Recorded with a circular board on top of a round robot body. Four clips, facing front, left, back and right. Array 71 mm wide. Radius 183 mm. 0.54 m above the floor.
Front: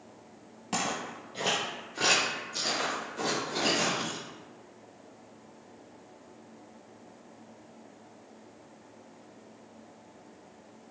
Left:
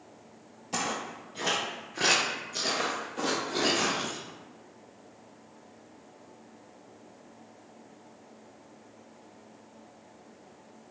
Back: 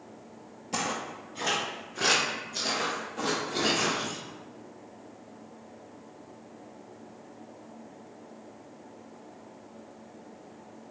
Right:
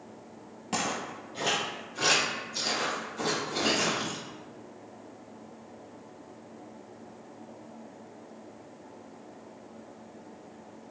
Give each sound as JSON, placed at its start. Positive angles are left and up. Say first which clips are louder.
{"t": 0.7, "sound": "footsteps", "louder": "right 1 dB, even", "azimuth_deg": -50, "distance_m": 0.7}